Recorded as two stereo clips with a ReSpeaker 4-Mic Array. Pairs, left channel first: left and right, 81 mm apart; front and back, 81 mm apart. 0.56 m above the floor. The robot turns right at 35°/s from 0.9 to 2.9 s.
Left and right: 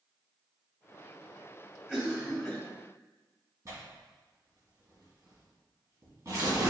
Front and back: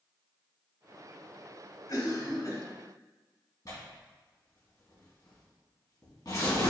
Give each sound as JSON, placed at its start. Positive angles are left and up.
{"t": 1.9, "sound": "a cough", "azimuth_deg": -15, "distance_m": 1.2}
{"t": 3.6, "sound": "tearing paper", "azimuth_deg": -40, "distance_m": 2.0}